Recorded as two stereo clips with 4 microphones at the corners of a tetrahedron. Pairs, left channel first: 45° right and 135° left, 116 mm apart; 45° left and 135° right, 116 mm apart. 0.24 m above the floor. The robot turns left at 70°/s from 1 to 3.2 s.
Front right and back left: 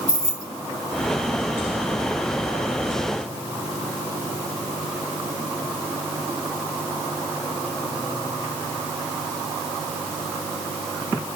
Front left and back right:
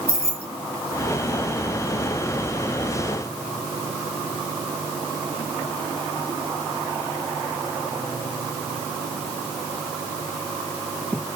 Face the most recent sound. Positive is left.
turn(degrees=130)